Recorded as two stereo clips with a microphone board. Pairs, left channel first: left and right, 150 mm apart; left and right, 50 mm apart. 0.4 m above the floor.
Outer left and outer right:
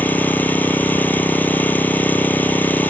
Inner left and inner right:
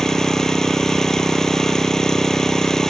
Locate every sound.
0.0 s an engine running: 10° left (ahead or behind)